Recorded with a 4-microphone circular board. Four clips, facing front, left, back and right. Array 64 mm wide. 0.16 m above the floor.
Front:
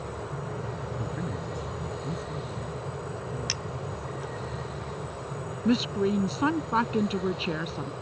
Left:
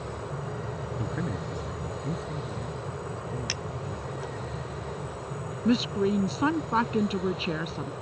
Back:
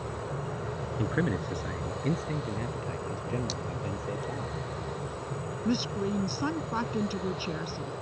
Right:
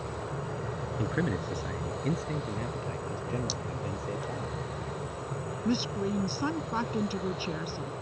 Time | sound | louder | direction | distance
1.0 | a man speaking | right 4 dB, back 4 dB | 155° right | ?
3.5 | cutlery clinking | left 1 dB, even | 60° left | ?
5.7 | a woman speaking | left 6 dB, front 5 dB | 45° left | ?